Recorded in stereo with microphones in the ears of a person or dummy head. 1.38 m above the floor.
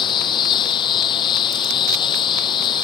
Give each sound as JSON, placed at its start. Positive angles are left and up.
{"t": 0.0, "sound": "a lawn mower", "side_deg": 25}